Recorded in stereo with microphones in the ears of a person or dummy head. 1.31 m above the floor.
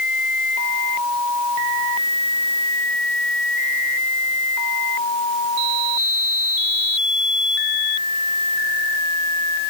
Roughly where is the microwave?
I don't hear a microwave.